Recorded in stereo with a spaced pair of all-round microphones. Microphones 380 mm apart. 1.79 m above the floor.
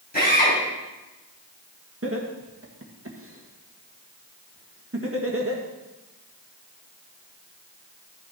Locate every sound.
0.1 s a drill: 25° left (ahead or behind), 6 m
2.0 s laughter: 35° right (ahead or behind), 1.8 m